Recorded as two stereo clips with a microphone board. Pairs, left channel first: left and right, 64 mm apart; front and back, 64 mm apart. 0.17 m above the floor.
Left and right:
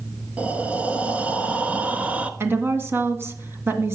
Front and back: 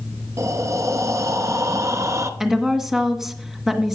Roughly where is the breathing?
Behind right.